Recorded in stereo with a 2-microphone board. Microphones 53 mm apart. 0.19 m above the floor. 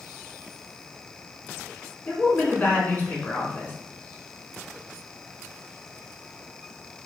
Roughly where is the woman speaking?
Left.